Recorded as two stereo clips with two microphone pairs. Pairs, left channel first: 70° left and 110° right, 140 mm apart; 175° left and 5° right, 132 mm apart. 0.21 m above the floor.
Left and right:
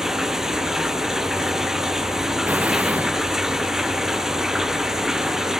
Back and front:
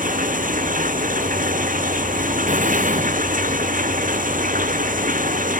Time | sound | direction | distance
0.0 | running water | 25° right | ?
2.5 | an explosion | 30° right | ?